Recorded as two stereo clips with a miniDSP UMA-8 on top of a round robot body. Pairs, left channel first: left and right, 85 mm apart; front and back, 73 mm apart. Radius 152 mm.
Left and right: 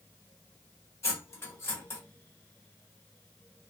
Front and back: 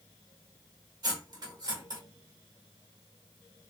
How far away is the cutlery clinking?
About 1.6 m.